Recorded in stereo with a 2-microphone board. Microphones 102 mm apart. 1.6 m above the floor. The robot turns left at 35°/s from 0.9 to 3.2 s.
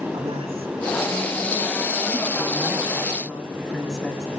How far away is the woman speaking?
About 2.5 m.